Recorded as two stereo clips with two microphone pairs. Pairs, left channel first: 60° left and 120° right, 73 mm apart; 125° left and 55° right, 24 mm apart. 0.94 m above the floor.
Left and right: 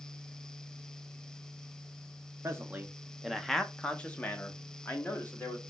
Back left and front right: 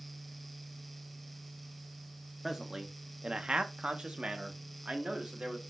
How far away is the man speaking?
About 0.5 m.